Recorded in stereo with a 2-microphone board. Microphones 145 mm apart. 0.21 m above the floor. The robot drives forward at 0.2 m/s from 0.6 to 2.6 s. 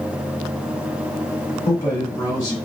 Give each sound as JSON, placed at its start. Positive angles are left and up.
{"t": 1.6, "sound": "a man speaking", "side_deg": 25, "distance_m": 1.6}